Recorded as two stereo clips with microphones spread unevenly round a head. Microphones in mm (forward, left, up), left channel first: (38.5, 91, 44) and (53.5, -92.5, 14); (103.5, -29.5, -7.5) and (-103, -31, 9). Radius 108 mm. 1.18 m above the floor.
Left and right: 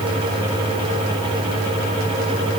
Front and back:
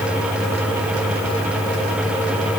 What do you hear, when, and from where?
Only background noise.